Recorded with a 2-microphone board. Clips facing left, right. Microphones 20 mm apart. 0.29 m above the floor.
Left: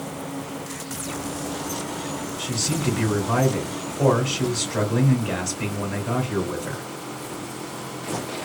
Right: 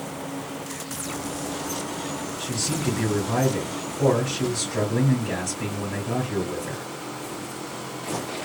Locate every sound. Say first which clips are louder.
2.4 s a man speaking: left 2 dB; 55° left (ahead or behind), 1.9 m